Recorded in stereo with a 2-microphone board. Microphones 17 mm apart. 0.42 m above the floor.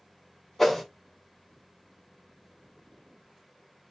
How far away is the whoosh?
About 1.3 m.